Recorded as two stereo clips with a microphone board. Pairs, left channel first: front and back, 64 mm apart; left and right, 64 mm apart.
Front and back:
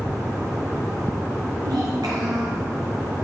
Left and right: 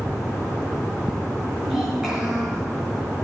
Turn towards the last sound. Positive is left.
turn(degrees=-170)